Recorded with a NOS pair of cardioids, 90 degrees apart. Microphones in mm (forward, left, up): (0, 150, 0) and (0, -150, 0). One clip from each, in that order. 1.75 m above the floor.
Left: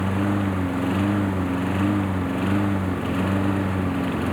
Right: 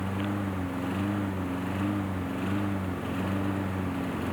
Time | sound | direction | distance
0.0 | a lawn mower | 60° left | ?